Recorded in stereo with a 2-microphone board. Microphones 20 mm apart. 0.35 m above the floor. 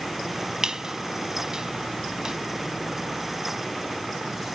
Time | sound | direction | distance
0.6 | a squeak | 40° right (ahead or behind) | 0.5 m